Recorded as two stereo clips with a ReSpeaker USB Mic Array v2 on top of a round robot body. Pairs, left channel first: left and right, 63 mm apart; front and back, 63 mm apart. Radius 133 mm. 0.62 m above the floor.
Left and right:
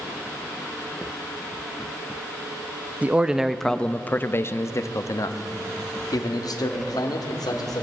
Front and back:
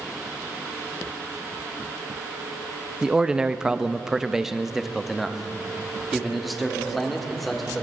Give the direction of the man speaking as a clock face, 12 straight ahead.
4 o'clock.